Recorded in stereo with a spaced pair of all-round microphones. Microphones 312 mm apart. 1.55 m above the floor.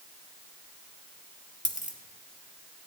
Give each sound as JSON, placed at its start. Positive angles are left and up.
{"t": 1.6, "sound": "a dropped coin", "side_deg": 25, "distance_m": 1.0}